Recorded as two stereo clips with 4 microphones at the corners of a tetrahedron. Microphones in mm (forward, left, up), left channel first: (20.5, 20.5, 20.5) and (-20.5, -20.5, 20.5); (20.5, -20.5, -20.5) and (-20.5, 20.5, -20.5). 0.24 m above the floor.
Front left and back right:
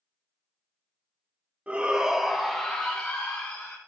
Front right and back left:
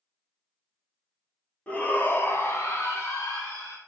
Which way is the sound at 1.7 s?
90° right.